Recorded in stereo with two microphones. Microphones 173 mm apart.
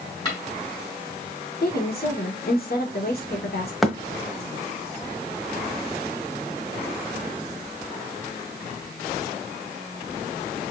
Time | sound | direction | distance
0.2 | a drawer | 25° left (ahead or behind) | 3.5 m
1.6 | a woman speaking | 60° left (ahead or behind) | 1.6 m
3.8 | a thud | centre (ahead or behind) | 1.1 m